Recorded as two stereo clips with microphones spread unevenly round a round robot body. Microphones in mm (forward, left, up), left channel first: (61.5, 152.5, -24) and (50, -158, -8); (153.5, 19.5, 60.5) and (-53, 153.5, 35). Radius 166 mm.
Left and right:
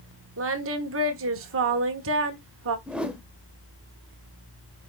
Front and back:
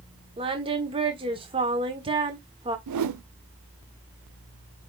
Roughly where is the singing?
Behind right.